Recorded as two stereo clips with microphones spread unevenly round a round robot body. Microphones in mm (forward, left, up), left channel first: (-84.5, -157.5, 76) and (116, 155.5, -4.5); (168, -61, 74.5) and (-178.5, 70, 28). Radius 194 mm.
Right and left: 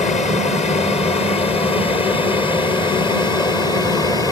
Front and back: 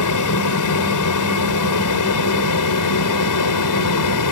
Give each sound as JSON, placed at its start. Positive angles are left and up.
{"t": 0.0, "sound": "an aircraft", "azimuth_deg": -45}